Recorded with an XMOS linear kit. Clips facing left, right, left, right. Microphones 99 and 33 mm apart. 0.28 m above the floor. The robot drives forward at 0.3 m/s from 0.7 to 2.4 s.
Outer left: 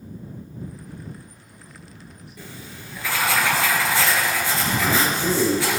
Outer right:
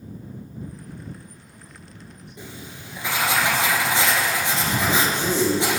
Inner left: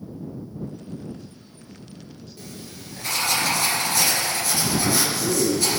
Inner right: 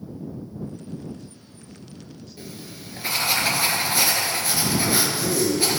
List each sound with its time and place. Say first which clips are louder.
2.4 s writing: outer right 1 dB, inner right 1 dB; 20° right (ahead or behind), 2.5 m
4.8 s a man speaking: outer left 1 dB, even; centre (ahead or behind), 3 m